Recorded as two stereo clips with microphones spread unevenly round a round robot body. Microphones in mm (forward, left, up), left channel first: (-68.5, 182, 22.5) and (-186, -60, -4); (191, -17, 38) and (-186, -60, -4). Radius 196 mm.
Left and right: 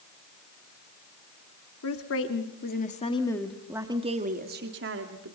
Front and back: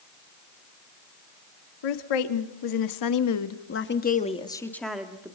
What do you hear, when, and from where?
1.8 s a woman speaking: 25° left, 2 m; by 5.4 s 95° right, 2.0 m